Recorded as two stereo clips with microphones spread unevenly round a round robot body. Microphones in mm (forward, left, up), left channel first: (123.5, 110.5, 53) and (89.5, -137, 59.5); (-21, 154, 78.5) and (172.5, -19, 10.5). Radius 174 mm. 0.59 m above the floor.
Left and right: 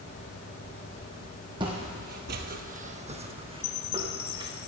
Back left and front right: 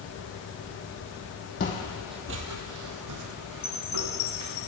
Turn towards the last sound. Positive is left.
turn(degrees=90)